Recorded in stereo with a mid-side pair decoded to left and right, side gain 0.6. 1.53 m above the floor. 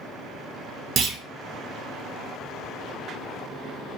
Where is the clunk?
50° right, 0.6 m.